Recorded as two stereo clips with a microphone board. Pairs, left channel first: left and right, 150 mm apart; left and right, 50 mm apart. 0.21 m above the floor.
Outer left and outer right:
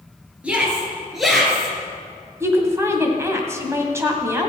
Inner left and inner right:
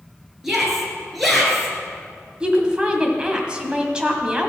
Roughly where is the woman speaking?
Centre.